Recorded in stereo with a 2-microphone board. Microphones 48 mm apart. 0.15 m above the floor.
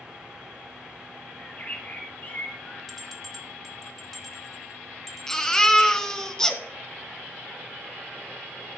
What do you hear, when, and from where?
1.4 s a bird: 40° left (ahead or behind), 2.5 m
2.9 s a bell: 5° left (ahead or behind), 1.7 m
5.3 s a baby crying: 10° left (ahead or behind), 1.1 m